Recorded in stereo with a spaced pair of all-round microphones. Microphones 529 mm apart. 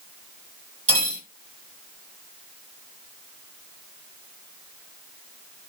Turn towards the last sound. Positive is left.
turn(degrees=-50)  # may be behind; listen again after turning